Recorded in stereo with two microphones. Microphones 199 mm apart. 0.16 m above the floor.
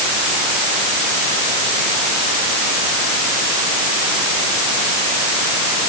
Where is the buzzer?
I don't hear a buzzer.